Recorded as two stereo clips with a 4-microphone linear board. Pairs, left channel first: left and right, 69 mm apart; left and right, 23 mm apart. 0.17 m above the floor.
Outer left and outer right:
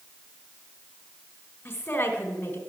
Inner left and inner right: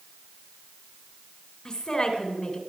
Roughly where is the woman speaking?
Left.